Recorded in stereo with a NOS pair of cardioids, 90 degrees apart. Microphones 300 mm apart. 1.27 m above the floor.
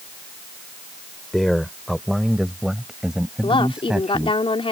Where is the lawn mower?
I don't hear a lawn mower.